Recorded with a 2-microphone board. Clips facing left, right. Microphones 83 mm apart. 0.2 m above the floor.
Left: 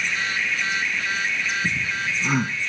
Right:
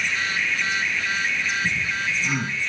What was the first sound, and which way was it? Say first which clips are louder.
Laughter: even; 40° left (ahead or behind).